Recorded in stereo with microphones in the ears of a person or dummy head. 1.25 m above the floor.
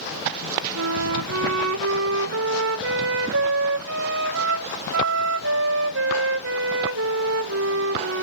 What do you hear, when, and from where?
0.8 s a flute: 65° right (ahead or behind), 1.3 m